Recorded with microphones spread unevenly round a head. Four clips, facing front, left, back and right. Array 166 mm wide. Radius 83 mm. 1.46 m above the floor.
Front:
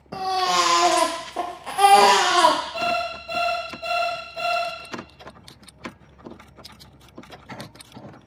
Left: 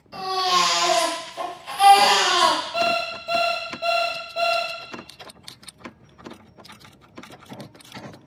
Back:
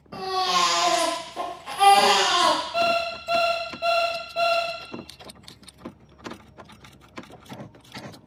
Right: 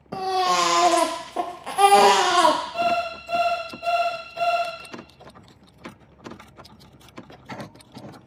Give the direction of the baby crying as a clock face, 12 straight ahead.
2 o'clock.